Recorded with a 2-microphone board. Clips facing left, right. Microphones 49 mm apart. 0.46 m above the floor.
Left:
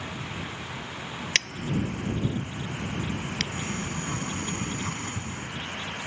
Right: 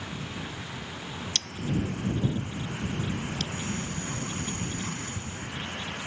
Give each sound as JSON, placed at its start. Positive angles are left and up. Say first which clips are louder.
{"t": 1.4, "sound": "scissors", "louder": "left 3 dB", "side_deg": 80}
{"t": 3.5, "sound": "a sliding door", "louder": "left 1 dB", "side_deg": 45}